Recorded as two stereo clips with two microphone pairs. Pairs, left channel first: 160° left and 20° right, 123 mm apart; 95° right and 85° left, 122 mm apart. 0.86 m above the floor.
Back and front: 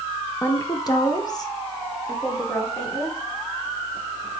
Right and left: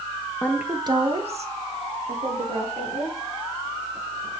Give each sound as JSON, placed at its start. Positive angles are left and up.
{"t": 0.4, "sound": "a woman speaking", "azimuth_deg": -150, "distance_m": 0.7}